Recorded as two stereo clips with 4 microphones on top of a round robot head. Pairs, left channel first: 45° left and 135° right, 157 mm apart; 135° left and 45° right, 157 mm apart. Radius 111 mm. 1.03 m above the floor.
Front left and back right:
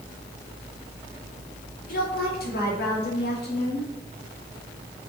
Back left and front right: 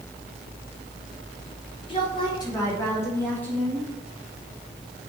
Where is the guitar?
I don't hear a guitar.